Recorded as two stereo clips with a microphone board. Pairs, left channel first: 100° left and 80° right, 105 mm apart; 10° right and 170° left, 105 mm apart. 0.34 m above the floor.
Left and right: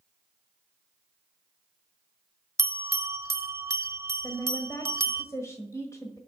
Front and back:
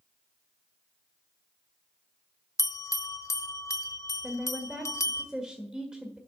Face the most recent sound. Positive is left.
turn(degrees=90)